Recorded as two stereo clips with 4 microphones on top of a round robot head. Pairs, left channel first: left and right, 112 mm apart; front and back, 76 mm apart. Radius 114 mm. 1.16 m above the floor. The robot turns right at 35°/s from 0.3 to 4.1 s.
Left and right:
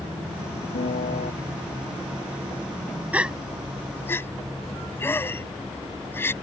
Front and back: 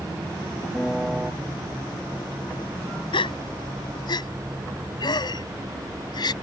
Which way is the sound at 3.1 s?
15° right.